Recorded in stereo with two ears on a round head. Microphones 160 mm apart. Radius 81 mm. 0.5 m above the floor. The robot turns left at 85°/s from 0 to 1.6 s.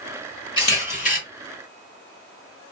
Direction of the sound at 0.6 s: 140° left.